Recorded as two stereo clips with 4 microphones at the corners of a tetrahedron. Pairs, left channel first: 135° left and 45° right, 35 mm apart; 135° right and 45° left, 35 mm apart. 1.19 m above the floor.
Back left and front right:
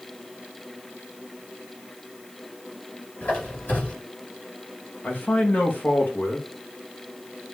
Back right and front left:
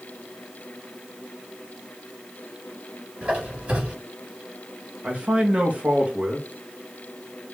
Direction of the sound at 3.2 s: 95° left.